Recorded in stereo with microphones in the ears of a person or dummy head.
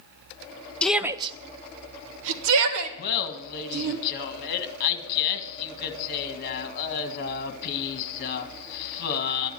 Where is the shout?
10° left (ahead or behind), 0.8 m; by 4.0 s 85° right, 3 m.